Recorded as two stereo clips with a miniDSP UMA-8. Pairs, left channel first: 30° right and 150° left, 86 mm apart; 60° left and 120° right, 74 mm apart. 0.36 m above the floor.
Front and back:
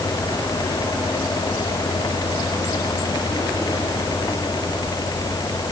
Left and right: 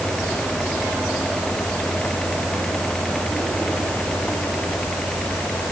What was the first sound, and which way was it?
Only background noise.